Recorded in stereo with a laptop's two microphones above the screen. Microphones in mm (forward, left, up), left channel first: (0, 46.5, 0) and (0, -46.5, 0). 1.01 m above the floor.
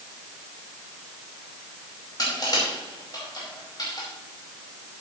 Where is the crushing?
45° left (ahead or behind), 5 m.